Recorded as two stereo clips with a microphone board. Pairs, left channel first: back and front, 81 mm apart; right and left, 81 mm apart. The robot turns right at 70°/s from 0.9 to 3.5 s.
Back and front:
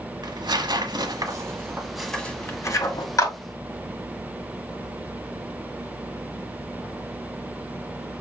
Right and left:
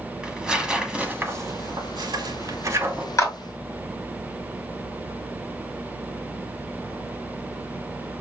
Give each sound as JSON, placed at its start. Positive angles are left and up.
{"t": 0.2, "sound": "tearing paper", "azimuth_deg": 10, "distance_m": 1.1}
{"t": 3.2, "sound": "a clap", "azimuth_deg": -135, "distance_m": 2.0}